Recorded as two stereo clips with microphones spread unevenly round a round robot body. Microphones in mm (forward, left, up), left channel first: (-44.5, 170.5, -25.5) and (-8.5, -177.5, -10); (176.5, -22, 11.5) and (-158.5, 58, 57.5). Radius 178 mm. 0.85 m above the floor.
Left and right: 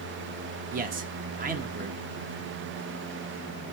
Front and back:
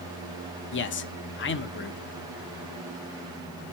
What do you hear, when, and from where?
0.7 s a man speaking: 25° right, 0.7 m